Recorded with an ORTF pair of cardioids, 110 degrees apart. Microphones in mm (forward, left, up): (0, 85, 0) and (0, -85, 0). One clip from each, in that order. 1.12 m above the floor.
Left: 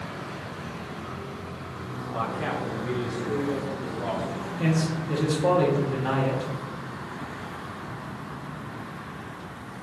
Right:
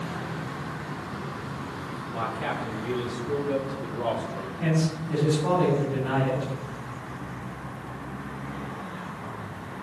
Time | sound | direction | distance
2.1 | a man speaking | 20° left | 3 m
4.6 | a man speaking | 50° left | 2.5 m